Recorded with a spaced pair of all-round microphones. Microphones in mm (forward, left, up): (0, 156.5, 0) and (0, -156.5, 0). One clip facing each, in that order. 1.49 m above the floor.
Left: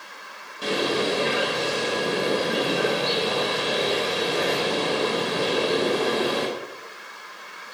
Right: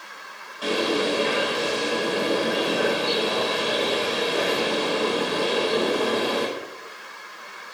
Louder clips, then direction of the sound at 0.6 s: Right 1 dB; 30° left (ahead or behind).